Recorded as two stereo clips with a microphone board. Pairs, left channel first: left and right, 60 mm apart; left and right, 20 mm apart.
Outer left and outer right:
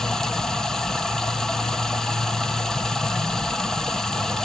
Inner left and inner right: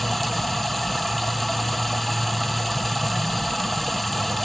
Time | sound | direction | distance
0.0 | running water | 10° left (ahead or behind) | 1.1 m